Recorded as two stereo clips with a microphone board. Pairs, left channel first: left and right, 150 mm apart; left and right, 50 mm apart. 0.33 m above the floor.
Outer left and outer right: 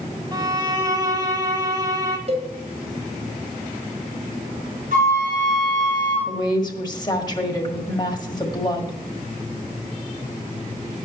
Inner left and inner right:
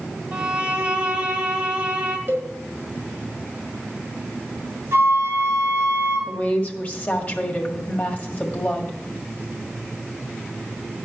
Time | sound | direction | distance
0.3 | a violin | 25° right (ahead or behind) | 1.1 m
2.3 | a cowbell | 50° right (ahead or behind) | 2 m
4.9 | a flute | 60° right (ahead or behind) | 4.5 m
6.3 | a woman speaking | 30° left (ahead or behind) | 1.6 m